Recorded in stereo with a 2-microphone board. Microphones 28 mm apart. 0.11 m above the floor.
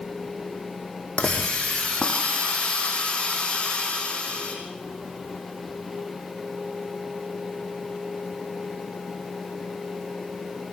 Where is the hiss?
30° left (ahead or behind), 4.5 m.